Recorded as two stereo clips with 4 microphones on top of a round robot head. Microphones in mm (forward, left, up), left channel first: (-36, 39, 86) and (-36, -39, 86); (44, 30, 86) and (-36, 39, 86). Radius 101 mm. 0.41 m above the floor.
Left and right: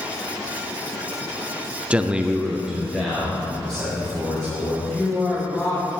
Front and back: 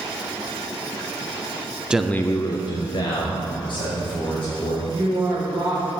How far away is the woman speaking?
About 2.5 m.